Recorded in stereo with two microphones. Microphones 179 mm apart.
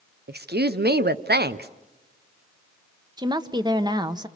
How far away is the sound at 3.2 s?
About 1.1 m.